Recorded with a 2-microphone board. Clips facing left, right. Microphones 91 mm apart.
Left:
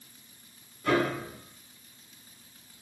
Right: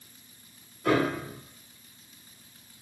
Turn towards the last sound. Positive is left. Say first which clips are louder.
# right 1 dB
turn(degrees=-75)  # may be behind; listen again after turning